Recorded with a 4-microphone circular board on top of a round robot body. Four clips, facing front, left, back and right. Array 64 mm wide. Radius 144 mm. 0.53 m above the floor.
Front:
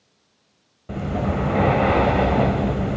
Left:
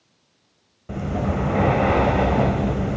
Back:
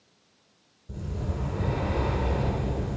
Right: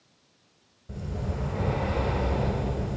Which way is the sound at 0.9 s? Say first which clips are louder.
Left 11 dB, front 12 dB; 40° left.